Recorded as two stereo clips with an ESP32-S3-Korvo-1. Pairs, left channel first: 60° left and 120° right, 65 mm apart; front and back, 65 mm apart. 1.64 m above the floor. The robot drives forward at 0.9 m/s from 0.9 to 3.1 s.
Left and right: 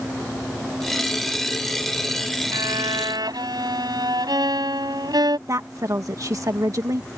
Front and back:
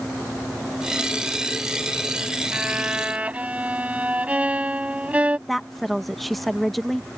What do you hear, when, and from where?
2.5 s a violin: 105° right; by 5.4 s 110° right
5.5 s a woman speaking: 85° right